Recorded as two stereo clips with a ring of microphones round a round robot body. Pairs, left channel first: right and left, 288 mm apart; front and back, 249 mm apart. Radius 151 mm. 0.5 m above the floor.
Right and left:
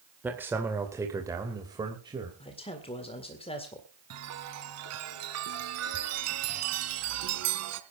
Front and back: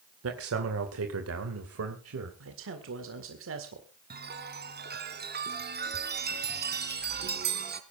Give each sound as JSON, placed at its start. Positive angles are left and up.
{"t": 0.2, "sound": "a man speaking", "azimuth_deg": 175, "distance_m": 2.0}
{"t": 2.4, "sound": "a man speaking", "azimuth_deg": -160, "distance_m": 1.9}
{"t": 4.1, "sound": "a chime", "azimuth_deg": 130, "distance_m": 2.0}